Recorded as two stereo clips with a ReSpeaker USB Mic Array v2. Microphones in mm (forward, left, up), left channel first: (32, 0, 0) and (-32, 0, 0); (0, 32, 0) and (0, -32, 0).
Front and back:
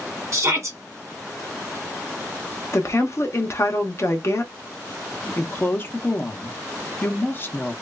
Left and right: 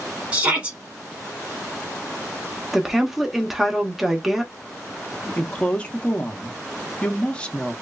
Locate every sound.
0.3 s a shout: 155° right, 1.6 m
2.7 s a woman speaking: 5° right, 0.7 m
5.4 s a woman speaking: 30° left, 0.7 m